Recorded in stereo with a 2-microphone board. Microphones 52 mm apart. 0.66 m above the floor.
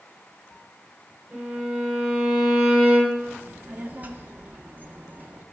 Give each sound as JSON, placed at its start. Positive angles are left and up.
{"t": 1.3, "sound": "a violin", "side_deg": -25, "distance_m": 1.8}
{"t": 3.4, "sound": "a child speaking", "side_deg": -35, "distance_m": 0.9}